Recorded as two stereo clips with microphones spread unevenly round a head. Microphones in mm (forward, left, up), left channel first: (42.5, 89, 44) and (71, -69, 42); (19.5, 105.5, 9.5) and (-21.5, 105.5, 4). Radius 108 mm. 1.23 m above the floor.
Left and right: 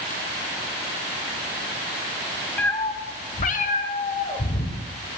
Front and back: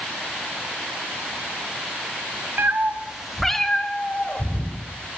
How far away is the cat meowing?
About 0.9 m.